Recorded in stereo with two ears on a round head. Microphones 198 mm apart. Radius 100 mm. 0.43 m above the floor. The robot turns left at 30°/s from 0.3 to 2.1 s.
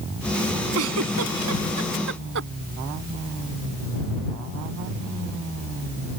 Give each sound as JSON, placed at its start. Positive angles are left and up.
{"t": 0.8, "sound": "a giggle", "side_deg": -70}